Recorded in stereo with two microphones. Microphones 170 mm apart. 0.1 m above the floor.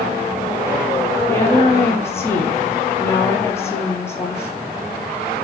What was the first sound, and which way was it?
A woman speaking, 15° left (ahead or behind).